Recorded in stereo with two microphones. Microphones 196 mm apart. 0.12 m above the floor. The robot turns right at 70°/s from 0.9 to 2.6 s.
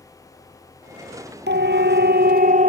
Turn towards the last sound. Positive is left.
turn(degrees=-45)  # may be behind; listen again after turning